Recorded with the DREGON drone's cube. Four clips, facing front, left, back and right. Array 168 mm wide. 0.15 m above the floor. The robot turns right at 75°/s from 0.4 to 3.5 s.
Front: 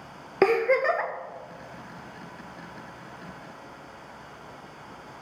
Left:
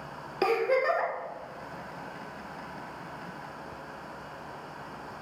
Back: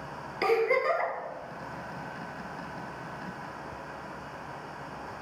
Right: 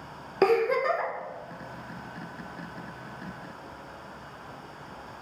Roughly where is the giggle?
Ahead.